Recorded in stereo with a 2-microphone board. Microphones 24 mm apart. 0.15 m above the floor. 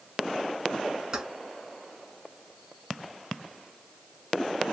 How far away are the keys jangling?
About 0.9 m.